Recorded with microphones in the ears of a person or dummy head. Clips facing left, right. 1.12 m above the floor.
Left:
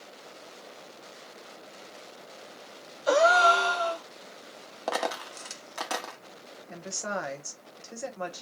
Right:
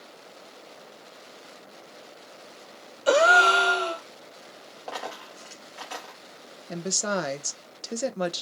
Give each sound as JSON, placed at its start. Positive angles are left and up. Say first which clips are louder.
{"t": 3.1, "sound": "a gasp", "louder": "right 1 dB", "side_deg": -40, "distance_m": 1.0}
{"t": 4.9, "sound": "a dropped coin", "louder": "left 6 dB", "side_deg": 65, "distance_m": 1.0}
{"t": 6.7, "sound": "a woman speaking", "louder": "right 6 dB", "side_deg": -50, "distance_m": 0.8}